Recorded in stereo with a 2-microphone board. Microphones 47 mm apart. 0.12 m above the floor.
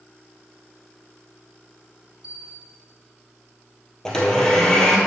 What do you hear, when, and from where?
2.2 s a bell: 10° right (ahead or behind), 3 m
4.0 s a blender: 10° left (ahead or behind), 1.6 m